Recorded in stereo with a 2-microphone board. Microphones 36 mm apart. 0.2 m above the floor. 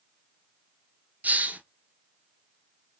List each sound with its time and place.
1.2 s a hiss: 45° right (ahead or behind), 0.6 m